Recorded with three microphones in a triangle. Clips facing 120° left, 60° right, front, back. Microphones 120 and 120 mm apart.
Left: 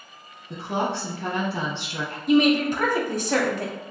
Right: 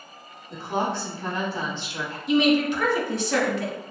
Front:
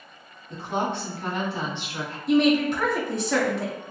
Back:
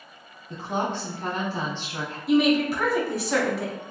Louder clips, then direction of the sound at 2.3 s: Left 1 dB, front 1 dB; 95° left.